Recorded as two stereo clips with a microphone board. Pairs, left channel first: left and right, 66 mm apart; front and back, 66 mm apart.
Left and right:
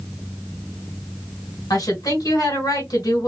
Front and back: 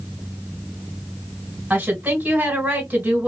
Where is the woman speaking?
110° left, 1.8 m.